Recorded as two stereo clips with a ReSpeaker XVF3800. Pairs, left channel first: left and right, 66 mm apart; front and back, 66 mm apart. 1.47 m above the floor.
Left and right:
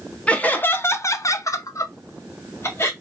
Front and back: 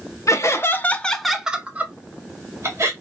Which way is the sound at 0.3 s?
20° left.